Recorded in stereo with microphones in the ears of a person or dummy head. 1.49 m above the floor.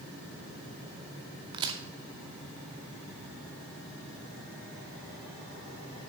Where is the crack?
25° right (ahead or behind), 0.7 m.